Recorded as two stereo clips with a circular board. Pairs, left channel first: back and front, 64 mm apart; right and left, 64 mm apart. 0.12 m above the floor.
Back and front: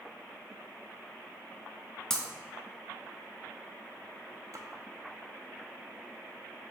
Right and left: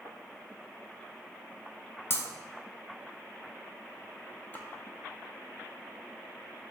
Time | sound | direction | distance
2.1 | breaking glass | 105° right | 0.6 m
4.5 | a splash | 30° right | 0.5 m